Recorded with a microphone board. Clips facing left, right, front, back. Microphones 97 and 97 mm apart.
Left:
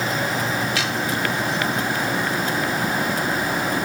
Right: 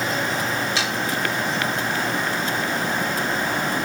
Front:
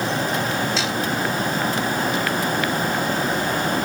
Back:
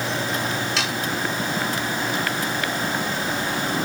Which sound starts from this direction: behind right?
Sawing, at 0.8 s.